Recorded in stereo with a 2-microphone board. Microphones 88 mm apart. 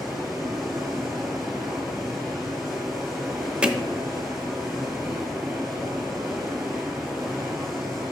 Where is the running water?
Centre (ahead or behind), 1.6 m.